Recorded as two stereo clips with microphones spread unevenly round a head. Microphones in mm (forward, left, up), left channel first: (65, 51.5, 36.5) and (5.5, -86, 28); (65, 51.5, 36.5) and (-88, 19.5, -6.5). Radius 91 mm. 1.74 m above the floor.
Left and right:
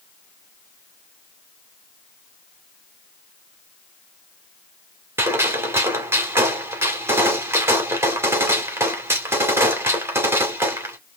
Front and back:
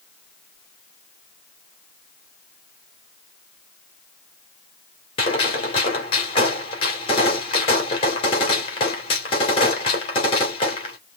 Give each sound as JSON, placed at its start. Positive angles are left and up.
{"t": 5.2, "sound": "a gunshot", "azimuth_deg": -40, "distance_m": 2.5}